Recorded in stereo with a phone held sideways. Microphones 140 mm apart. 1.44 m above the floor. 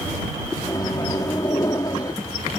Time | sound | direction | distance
0.6 | a microwave | 25° left (ahead or behind) | ?